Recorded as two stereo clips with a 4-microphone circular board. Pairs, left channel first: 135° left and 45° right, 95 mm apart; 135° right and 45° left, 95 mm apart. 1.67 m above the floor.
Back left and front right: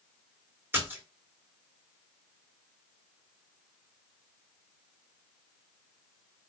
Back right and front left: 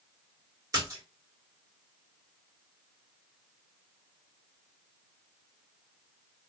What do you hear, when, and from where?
0.7 s a splash: 15° left, 1.7 m